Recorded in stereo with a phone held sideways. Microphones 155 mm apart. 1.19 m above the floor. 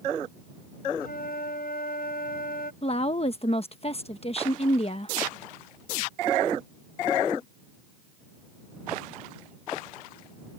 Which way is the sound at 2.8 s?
40° left (ahead or behind).